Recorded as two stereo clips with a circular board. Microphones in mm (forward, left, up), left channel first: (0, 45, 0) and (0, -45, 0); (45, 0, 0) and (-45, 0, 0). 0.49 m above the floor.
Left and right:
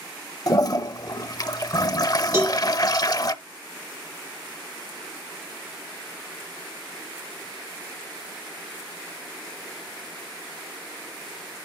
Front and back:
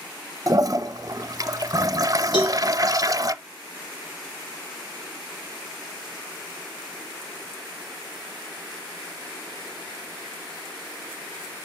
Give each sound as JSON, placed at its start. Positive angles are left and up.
{"t": 0.5, "sound": "a toilet flushing", "azimuth_deg": 130, "distance_m": 0.5}
{"t": 2.3, "sound": "a cowbell", "azimuth_deg": -35, "distance_m": 4.0}